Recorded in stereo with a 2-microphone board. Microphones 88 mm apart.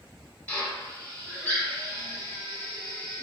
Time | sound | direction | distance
0.5 | a drill | 20° left (ahead or behind) | 0.9 m